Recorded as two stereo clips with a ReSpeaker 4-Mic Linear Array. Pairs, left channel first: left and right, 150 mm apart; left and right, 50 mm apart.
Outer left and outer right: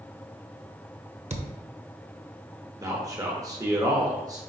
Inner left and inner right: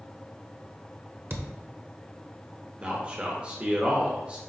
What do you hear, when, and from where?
1.3 s a thud: 45° right (ahead or behind), 0.6 m
2.8 s a man speaking: 20° right (ahead or behind), 0.8 m